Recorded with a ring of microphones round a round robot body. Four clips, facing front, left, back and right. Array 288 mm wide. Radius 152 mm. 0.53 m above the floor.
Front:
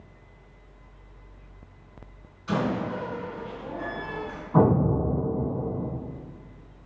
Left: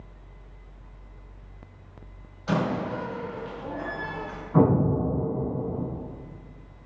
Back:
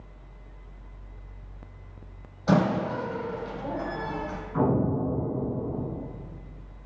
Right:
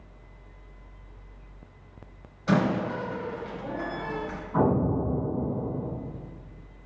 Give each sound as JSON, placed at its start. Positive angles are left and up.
{"t": 2.5, "sound": "a door slam", "azimuth_deg": -160, "distance_m": 2.0}
{"t": 4.5, "sound": "an explosion", "azimuth_deg": 25, "distance_m": 3.0}